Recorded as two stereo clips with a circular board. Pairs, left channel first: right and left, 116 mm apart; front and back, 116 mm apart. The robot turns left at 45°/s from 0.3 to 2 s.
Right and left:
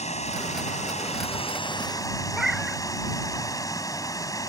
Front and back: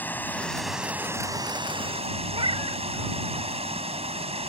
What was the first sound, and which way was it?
Running water, 75° right.